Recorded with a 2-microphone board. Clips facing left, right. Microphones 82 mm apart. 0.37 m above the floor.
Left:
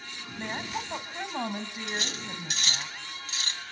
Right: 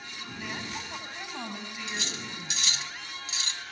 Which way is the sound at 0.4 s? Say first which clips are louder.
Left 4 dB; 40° left (ahead or behind).